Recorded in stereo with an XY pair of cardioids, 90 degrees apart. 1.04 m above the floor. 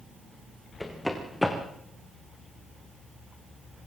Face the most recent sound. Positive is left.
turn(degrees=10)